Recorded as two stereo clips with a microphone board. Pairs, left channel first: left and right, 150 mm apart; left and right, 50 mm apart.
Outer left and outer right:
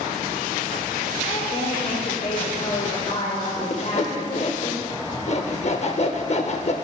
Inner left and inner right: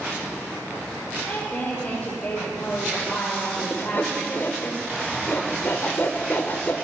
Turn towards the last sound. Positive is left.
turn(degrees=50)  # may be behind; listen again after turning